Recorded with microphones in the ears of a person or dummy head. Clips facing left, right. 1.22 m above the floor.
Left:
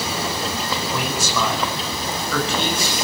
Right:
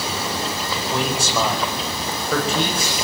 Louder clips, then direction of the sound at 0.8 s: Right 2 dB; 30° right (ahead or behind).